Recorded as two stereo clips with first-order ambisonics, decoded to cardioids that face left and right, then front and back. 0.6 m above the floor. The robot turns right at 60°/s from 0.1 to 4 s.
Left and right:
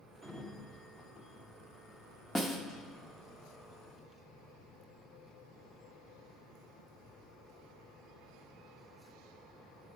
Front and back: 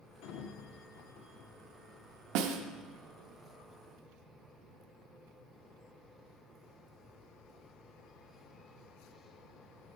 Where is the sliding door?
10° right, 0.7 m; by 3.4 s 175° left, 0.7 m.